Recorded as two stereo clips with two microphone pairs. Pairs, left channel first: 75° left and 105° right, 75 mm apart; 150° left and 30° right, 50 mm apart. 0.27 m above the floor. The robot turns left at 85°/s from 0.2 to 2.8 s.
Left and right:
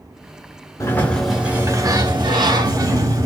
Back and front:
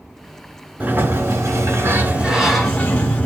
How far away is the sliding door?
About 1.6 m.